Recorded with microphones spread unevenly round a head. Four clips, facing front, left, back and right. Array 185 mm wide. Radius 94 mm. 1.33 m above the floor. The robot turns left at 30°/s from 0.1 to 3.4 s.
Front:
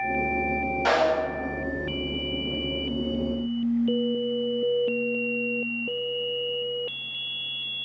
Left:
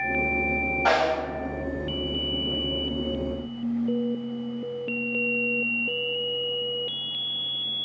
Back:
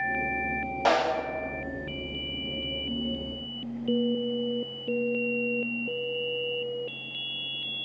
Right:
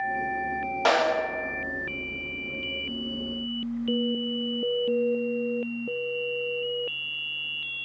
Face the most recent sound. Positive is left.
turn(degrees=140)